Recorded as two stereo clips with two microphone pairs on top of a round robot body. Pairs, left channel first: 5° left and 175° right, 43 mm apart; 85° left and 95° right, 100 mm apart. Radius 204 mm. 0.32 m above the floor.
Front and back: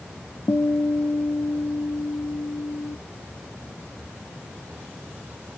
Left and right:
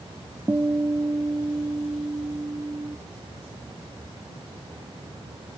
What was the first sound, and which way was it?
A guitar, 25° right.